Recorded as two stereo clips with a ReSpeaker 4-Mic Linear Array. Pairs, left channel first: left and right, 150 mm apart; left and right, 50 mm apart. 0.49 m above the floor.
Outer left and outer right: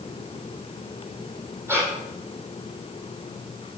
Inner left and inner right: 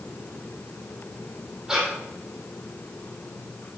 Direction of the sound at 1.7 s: 15° right (ahead or behind).